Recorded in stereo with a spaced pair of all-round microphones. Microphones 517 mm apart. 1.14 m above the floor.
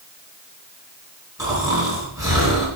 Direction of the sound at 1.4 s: 5° right (ahead or behind).